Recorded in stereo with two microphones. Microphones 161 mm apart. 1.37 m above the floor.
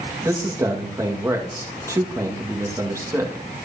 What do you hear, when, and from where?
0.2 s a man speaking: 20° right (ahead or behind), 1.7 m